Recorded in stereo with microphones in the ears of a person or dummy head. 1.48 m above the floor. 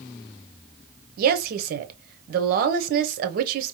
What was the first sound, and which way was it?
A woman speaking, 50° right (ahead or behind).